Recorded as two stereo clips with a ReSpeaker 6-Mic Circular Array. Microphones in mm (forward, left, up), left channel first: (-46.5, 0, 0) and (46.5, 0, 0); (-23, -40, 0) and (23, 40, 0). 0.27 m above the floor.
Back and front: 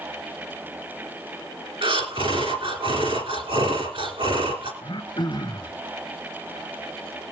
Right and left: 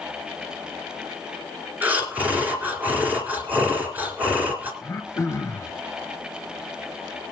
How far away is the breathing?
About 3 m.